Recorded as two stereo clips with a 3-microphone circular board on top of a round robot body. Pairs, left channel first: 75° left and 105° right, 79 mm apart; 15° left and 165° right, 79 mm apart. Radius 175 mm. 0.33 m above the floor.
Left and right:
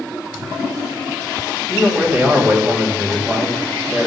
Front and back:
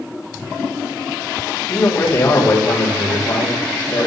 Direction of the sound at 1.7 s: 40° right.